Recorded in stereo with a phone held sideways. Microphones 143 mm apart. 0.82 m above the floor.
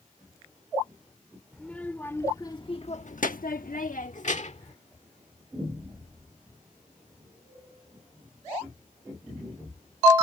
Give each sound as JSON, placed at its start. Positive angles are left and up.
{"t": 1.5, "sound": "a child speaking", "side_deg": 5}